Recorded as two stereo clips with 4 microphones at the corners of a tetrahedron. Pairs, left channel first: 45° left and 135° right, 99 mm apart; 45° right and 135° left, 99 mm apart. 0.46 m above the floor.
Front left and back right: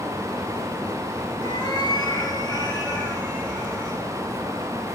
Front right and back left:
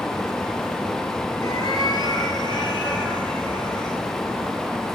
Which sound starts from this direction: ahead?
A cat meowing, at 1.4 s.